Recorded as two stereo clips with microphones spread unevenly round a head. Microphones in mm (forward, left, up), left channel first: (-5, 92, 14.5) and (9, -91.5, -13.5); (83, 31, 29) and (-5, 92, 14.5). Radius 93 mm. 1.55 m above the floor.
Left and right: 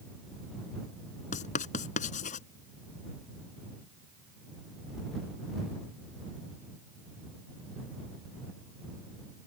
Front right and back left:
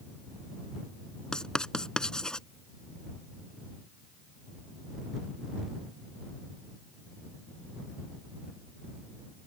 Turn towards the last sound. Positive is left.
turn(degrees=45)